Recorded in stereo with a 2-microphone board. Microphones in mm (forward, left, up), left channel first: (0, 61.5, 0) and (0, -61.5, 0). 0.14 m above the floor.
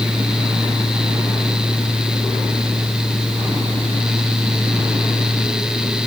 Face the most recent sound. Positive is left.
No sound to turn to.